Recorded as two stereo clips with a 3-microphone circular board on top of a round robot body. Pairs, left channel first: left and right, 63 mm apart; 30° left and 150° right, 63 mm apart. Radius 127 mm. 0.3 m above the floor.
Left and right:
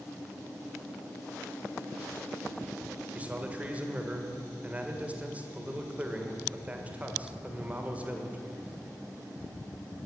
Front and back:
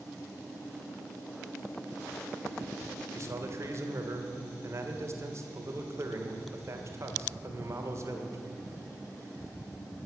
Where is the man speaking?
150° right, 1.7 m.